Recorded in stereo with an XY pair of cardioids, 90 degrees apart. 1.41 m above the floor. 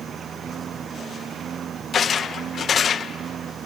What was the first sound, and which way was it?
A lawn mower, 65° right.